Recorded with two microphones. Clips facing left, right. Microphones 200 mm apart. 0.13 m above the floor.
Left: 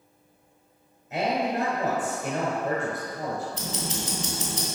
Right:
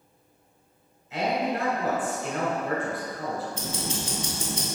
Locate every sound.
1.1 s a man speaking: 50° left (ahead or behind), 1.6 m
3.5 s ticking: 35° left (ahead or behind), 0.9 m